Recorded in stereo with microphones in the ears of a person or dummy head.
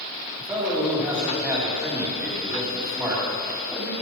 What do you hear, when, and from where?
0.4 s a man speaking: 10° right (ahead or behind), 2.5 m